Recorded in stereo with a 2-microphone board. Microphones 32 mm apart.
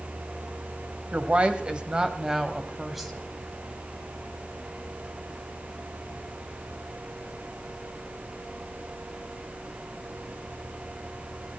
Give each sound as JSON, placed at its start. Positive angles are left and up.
{"t": 1.1, "sound": "a woman speaking", "side_deg": -40, "distance_m": 1.4}